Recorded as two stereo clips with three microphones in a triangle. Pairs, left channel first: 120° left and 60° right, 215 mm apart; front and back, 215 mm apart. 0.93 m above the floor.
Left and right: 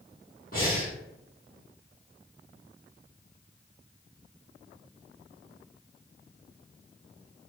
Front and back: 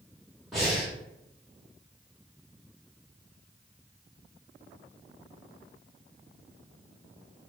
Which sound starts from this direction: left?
Breathing, at 0.5 s.